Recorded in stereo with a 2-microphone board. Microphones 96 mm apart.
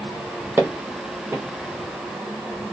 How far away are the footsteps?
About 1.4 m.